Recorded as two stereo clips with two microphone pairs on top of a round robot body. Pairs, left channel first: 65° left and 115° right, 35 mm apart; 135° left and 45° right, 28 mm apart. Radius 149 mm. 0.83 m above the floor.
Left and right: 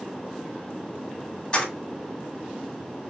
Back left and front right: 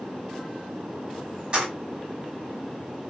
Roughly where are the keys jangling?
Ahead.